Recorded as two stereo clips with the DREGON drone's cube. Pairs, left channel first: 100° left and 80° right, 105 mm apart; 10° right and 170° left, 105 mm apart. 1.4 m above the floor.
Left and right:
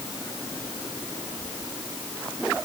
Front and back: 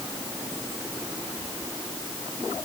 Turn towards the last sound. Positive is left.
No sound to turn to.